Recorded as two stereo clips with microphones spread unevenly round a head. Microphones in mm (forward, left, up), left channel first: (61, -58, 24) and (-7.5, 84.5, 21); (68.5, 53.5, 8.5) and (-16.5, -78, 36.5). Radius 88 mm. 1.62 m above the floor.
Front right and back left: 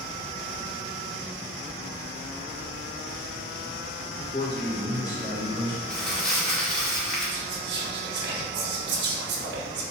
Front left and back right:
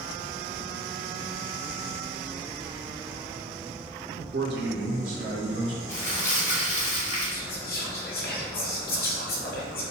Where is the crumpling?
20° left, 1.5 m.